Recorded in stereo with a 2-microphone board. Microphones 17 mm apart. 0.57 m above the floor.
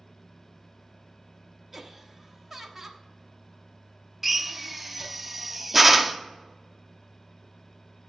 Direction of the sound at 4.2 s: 15° right (ahead or behind).